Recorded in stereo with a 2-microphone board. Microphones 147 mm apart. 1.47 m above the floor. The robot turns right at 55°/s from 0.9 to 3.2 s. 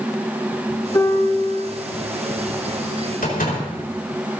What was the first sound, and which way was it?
A piano, 20° left.